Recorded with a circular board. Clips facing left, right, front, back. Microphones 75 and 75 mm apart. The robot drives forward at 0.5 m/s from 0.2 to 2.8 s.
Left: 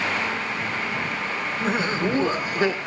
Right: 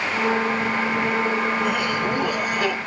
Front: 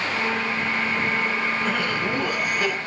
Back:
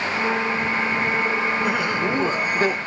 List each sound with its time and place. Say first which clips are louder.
1.6 s laughter: right 1 dB, back 2 dB; 115° left, 1.3 m; by 2.8 s 145° left, 1.5 m